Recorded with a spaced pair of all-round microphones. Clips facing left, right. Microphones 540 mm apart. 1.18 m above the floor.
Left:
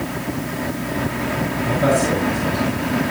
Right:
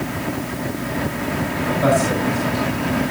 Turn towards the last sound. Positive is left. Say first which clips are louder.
# even
turn(degrees=50)  # may be behind; listen again after turning